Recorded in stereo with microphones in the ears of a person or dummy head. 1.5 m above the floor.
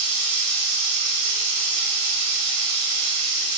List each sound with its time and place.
0.0 s running water: 70° right (ahead or behind), 1.2 m